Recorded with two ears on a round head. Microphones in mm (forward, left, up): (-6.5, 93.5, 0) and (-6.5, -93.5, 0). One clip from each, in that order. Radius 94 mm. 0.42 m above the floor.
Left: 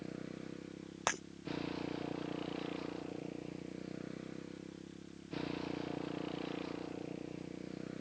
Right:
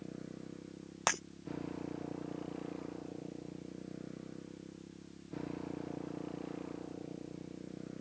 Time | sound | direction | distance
0.0 | a motorcycle | 85° left | ?
1.1 | breaking glass | 15° right (ahead or behind) | ?